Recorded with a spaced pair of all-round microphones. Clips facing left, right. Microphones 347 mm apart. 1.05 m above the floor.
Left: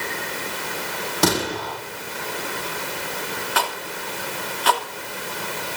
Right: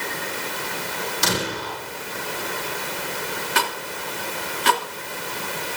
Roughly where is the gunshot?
Left.